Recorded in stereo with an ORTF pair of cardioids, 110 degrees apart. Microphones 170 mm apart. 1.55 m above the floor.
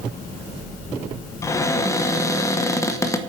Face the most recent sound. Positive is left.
turn(degrees=20)